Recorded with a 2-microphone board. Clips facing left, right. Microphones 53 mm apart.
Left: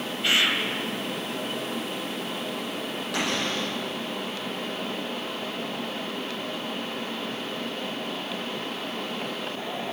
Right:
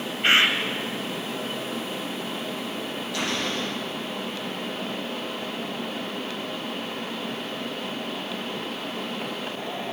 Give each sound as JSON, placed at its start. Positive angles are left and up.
{"t": 0.2, "sound": "a bird", "side_deg": -40, "distance_m": 1.3}
{"t": 3.1, "sound": "a cupboard door", "side_deg": 70, "distance_m": 8.0}